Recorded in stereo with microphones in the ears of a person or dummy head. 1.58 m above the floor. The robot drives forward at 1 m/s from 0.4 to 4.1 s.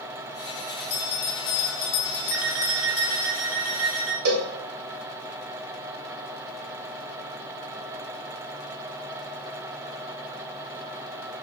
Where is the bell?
50° left (ahead or behind), 1.8 m; by 3.3 s 45° left (ahead or behind), 1.9 m.